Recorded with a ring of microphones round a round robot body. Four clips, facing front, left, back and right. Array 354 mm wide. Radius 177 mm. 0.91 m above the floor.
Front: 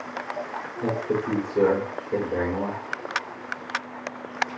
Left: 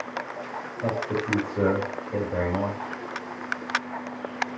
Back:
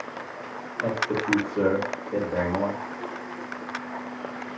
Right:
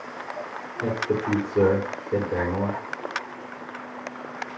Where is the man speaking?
65° right, 3 m.